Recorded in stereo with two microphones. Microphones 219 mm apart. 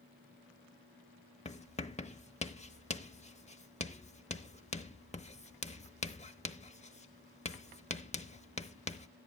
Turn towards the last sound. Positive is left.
turn(degrees=30)  # may be behind; listen again after turning